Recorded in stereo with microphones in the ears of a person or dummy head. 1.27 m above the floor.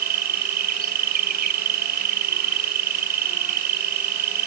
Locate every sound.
0.0 s an insect: 50° right (ahead or behind)